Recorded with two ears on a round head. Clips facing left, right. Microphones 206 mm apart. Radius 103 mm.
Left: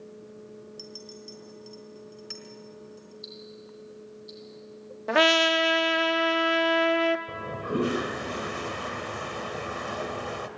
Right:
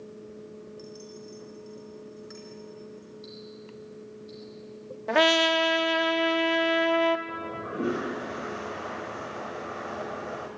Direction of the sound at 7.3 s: 50° left (ahead or behind).